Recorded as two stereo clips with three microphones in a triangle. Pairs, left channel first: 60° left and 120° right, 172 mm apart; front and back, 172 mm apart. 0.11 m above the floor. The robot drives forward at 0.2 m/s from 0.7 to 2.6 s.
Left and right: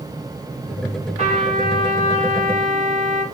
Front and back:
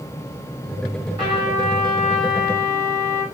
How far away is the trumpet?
About 2 m.